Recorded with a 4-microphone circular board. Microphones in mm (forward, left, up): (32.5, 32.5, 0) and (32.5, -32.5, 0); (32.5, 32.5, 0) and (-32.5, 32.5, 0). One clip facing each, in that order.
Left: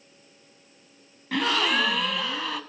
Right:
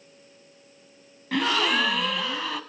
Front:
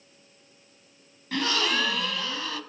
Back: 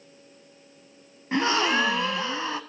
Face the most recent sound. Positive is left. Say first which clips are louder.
# right 1 dB, back 4 dB
turn(degrees=180)